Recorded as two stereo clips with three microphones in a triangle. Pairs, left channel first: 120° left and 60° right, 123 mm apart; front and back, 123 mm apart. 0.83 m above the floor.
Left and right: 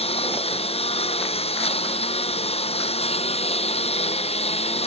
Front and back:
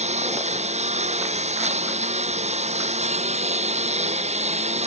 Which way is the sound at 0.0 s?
155° left.